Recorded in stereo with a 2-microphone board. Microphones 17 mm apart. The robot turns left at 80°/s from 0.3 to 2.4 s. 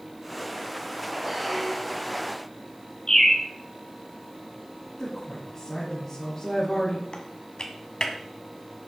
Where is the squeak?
155° right, 3 m; by 2.2 s 135° left, 3 m.